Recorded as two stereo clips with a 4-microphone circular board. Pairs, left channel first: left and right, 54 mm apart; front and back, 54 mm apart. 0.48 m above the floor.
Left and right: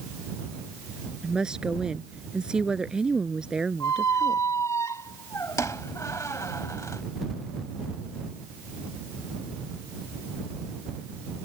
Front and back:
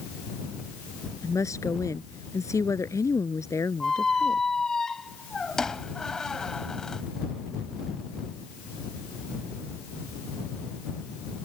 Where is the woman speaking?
15° right.